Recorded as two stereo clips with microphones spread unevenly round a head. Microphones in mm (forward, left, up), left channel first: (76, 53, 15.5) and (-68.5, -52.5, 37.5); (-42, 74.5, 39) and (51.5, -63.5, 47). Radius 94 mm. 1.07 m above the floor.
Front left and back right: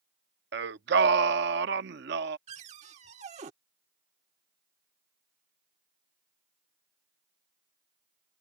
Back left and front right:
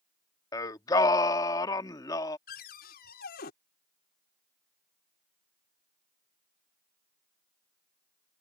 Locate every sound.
0.5 s singing: 165° right
2.5 s a cupboard door: 160° left